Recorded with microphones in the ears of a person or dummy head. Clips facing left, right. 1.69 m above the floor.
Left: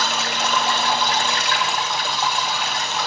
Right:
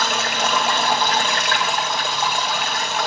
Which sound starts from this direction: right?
Running water, at 0.0 s.